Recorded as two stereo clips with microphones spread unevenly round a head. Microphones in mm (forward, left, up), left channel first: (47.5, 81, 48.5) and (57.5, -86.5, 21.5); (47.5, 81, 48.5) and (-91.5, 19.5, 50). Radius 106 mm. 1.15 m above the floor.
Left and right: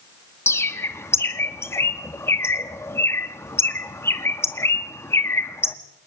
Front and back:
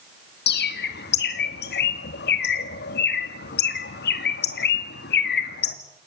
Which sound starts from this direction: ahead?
A bird, at 0.5 s.